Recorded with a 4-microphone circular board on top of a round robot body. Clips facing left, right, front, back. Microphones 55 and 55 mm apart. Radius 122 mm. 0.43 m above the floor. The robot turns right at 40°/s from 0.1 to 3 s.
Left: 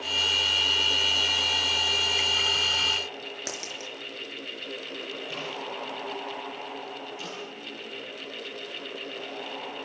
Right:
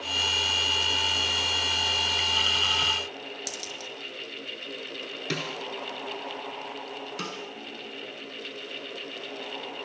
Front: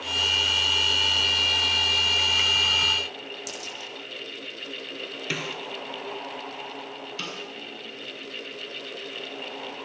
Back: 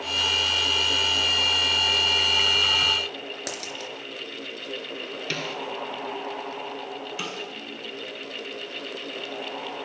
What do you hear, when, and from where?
3.5 s a dropped coin: 145° left, 5 m
5.3 s a snare drum: 80° right, 3 m
7.2 s a snare drum: 105° right, 7 m